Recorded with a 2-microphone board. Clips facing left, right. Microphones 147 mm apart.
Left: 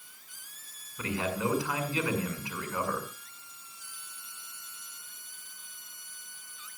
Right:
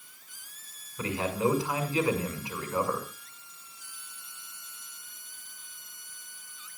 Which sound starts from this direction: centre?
A man speaking, at 1.0 s.